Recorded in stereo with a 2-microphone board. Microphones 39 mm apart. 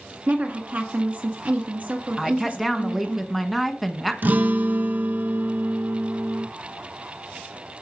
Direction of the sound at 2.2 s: 5° right (ahead or behind).